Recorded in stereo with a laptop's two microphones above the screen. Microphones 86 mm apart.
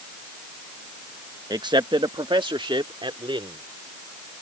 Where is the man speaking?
50° right (ahead or behind); by 3.6 s 75° right (ahead or behind).